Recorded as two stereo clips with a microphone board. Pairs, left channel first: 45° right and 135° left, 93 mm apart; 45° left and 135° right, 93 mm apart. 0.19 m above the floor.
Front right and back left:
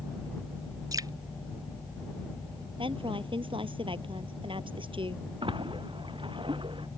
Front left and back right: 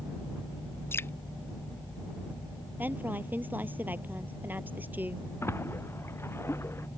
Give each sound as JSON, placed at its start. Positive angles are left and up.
{"t": 0.9, "sound": "dripping", "azimuth_deg": 100}
{"t": 2.8, "sound": "a woman speaking", "azimuth_deg": 155}
{"t": 5.4, "sound": "a splash", "azimuth_deg": 110}